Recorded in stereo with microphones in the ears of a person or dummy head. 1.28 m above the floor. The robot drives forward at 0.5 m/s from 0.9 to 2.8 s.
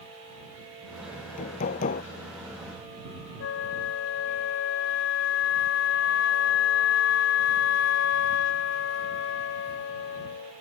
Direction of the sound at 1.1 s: 45° left (ahead or behind).